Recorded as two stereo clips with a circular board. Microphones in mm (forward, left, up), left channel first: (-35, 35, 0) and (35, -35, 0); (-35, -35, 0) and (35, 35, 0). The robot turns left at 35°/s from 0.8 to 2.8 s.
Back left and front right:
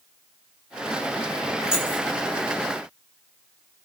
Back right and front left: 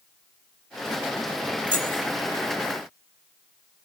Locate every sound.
1.7 s keys jangling: 35° left, 1.3 m; by 2.0 s 25° left, 1.3 m